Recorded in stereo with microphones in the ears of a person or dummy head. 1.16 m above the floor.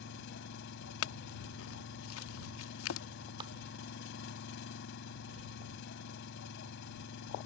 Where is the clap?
30° right (ahead or behind).